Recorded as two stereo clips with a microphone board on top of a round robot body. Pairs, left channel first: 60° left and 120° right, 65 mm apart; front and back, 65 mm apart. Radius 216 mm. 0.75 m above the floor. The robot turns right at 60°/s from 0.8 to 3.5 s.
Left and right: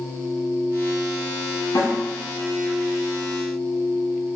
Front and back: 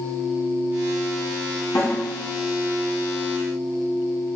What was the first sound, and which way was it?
A snare drum, 30° left.